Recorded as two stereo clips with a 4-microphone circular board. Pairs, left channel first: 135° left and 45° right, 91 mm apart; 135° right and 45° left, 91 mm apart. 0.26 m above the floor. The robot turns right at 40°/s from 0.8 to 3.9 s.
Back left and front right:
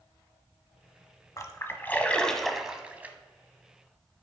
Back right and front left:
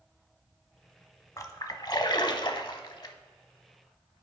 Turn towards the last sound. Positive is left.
turn(degrees=-80)